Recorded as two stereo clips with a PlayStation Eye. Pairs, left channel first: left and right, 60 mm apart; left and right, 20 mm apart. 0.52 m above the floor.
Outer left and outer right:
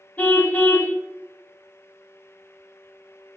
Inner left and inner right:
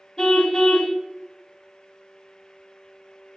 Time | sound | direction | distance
0.2 | a car horn | 30° left (ahead or behind) | 2 m